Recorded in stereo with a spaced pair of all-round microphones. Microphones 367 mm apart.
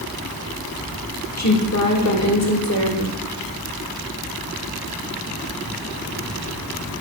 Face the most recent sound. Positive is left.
turn(degrees=45)  # may be behind; listen again after turning